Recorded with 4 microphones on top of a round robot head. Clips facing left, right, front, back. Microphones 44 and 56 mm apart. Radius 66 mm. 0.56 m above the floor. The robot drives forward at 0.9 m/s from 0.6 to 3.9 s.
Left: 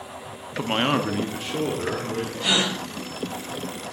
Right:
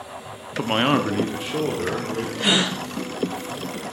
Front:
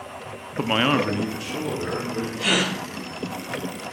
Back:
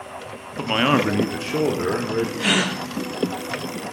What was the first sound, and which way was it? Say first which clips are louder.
A man speaking: right 3 dB, back 2 dB; 40° right.